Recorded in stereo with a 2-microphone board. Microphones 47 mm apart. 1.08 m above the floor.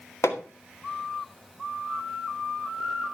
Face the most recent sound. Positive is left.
turn(degrees=85)